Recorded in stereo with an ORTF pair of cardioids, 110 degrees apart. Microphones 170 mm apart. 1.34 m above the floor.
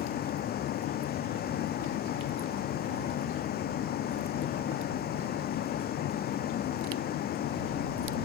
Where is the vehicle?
65° left.